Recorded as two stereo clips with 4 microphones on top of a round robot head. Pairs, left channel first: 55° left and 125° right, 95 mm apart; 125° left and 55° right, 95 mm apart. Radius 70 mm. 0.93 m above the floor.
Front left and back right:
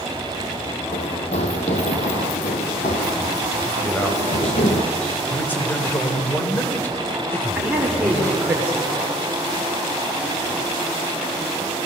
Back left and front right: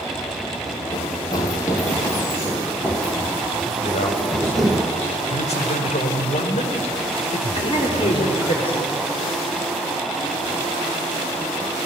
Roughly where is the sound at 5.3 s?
Behind left.